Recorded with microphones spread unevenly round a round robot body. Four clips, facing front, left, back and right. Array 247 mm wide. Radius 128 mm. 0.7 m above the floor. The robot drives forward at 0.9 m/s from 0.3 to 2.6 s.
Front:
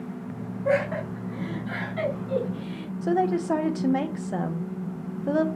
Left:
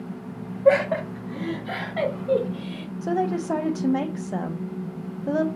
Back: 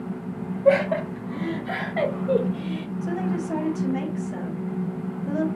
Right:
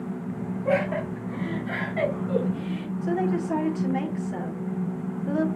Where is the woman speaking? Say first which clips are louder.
Left 2 dB, front 5 dB; 40° left, 1.0 m.